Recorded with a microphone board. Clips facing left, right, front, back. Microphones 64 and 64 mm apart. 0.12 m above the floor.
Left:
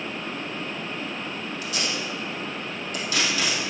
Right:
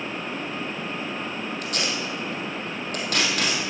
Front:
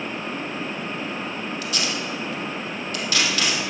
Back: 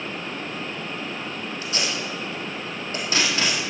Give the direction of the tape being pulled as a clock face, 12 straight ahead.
4 o'clock.